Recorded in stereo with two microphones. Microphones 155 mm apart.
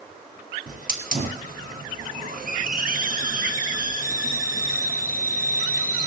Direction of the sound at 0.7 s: 65° right (ahead or behind).